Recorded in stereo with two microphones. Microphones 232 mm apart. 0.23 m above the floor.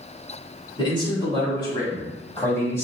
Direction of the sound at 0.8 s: 20° left (ahead or behind).